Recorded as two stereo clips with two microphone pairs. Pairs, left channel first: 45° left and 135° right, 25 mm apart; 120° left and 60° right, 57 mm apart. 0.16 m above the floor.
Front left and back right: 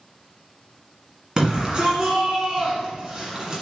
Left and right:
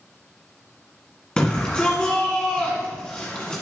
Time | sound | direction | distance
1.4 | a shout | 175° right | 1.5 m